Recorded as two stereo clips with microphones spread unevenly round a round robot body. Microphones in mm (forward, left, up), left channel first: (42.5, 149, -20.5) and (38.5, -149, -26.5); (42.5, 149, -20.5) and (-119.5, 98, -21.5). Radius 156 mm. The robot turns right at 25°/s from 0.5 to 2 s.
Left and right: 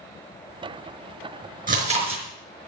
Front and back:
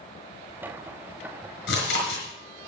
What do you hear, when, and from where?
1.7 s chewing: 30° right, 5 m; by 2.2 s 20° right, 5 m